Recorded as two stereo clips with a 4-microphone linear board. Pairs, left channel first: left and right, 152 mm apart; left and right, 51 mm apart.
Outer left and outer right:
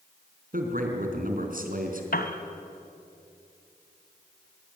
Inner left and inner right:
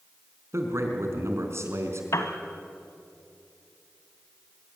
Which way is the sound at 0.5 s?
65° right (ahead or behind).